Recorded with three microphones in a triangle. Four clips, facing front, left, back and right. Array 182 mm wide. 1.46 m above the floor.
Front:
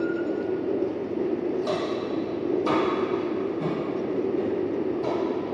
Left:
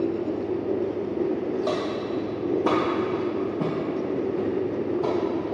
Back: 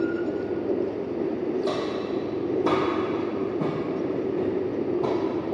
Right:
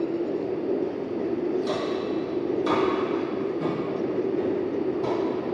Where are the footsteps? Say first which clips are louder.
Even, even; 100° left, 2.5 m; by 5.5 s 155° left, 2.5 m.